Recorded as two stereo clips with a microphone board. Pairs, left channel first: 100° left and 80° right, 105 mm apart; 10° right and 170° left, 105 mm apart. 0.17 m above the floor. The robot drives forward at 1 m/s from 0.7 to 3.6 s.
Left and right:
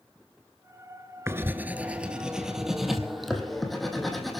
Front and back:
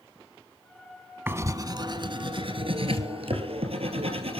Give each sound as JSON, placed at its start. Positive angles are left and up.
{"t": 1.3, "sound": "writing", "azimuth_deg": -130, "distance_m": 0.9}